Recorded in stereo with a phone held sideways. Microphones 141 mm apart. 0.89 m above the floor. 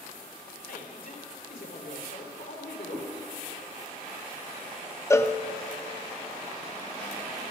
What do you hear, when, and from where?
0.7 s a man speaking: 75° left (ahead or behind), 3 m
2.9 s a cat meowing: 35° right (ahead or behind), 3.5 m
5.1 s a cowbell: 15° left (ahead or behind), 0.7 m